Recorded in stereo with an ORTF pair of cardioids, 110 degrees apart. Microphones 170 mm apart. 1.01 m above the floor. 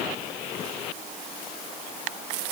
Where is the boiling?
No boiling in this recording.